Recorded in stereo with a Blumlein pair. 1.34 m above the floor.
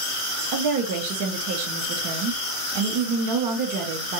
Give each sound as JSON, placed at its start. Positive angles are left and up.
{"t": 0.5, "sound": "a woman speaking", "azimuth_deg": -45, "distance_m": 0.7}